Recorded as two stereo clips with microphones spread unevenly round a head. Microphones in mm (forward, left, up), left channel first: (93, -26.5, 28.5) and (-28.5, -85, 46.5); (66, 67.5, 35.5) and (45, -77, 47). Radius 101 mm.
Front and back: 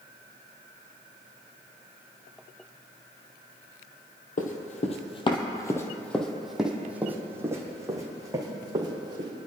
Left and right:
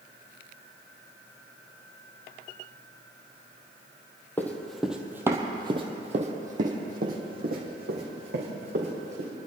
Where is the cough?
No cough in this recording.